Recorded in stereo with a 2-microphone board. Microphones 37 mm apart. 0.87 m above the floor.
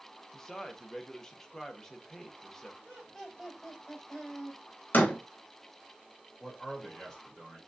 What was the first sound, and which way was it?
A man speaking, 15° left (ahead or behind).